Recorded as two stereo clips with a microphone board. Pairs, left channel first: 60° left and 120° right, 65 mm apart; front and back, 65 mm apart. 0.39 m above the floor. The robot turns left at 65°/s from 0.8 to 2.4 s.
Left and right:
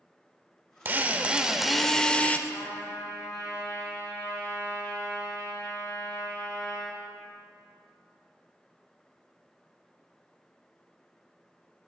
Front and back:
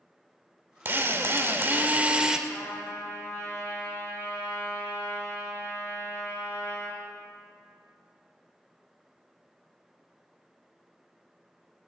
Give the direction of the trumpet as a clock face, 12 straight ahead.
10 o'clock.